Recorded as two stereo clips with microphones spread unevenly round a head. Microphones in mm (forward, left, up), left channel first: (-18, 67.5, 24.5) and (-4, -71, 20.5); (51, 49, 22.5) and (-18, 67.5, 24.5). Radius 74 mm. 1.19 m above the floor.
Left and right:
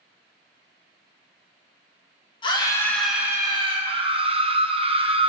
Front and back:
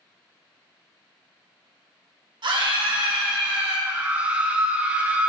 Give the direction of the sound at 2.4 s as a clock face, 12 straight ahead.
7 o'clock.